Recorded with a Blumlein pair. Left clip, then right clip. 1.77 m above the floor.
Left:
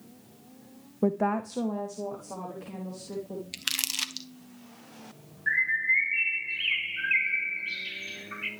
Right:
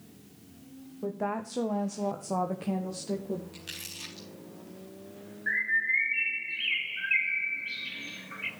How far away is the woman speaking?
About 0.5 m.